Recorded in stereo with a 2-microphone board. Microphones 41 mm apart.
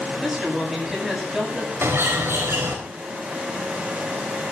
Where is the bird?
70° right (ahead or behind), 4.5 m.